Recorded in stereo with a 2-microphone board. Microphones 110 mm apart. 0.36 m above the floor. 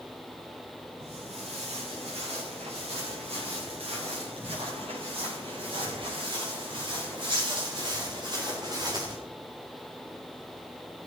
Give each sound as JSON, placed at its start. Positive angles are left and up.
{"t": 1.0, "sound": "footsteps", "side_deg": -75, "distance_m": 7.5}